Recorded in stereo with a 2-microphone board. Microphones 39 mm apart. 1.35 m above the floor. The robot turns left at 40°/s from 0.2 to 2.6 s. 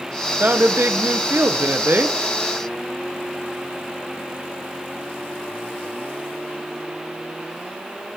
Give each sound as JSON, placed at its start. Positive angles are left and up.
{"t": 0.4, "sound": "a woman speaking", "azimuth_deg": -50, "distance_m": 0.8}